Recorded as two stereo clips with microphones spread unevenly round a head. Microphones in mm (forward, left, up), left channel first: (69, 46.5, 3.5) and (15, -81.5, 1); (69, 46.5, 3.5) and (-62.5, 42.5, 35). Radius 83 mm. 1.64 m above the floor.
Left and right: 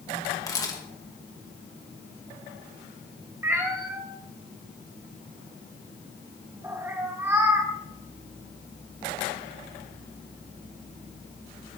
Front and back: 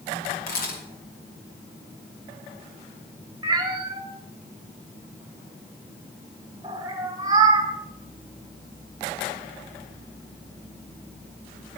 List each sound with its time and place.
0.5 s a camera shutter: straight ahead, 2.5 m
3.4 s a cat meowing: straight behind, 1.1 m